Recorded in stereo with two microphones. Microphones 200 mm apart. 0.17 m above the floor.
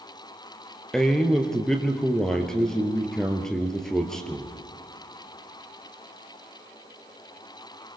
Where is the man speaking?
5° left (ahead or behind), 2.5 m.